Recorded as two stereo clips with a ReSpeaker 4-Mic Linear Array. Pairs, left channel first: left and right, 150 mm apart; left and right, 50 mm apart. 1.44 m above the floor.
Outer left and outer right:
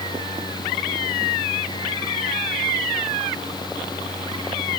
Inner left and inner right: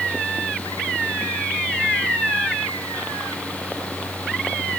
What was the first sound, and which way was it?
Only background noise.